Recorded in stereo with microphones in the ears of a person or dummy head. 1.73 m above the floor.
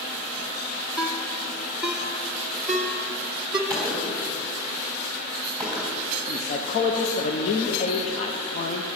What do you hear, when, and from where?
1.0 s a ringtone: 5° right (ahead or behind), 1.1 m
3.7 s a gunshot: 5° left (ahead or behind), 3 m
6.3 s a man speaking: 45° left (ahead or behind), 0.8 m